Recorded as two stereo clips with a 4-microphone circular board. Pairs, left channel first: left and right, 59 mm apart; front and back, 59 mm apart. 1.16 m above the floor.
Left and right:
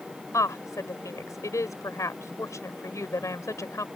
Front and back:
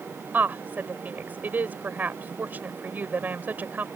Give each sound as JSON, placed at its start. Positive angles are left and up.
{"t": 0.3, "sound": "a woman speaking", "azimuth_deg": 120}